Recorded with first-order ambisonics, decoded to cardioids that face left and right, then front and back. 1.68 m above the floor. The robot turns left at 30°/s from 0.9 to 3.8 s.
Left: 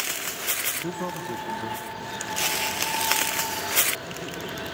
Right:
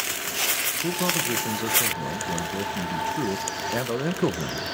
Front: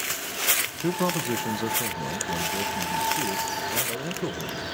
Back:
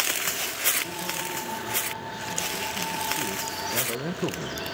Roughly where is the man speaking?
Ahead.